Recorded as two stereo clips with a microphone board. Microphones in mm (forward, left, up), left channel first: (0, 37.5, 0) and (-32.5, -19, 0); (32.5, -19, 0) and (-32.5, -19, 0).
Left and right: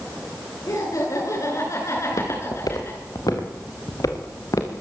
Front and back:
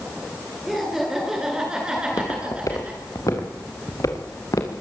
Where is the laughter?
90° left, 9.5 m; by 3.0 s 110° left, 9 m.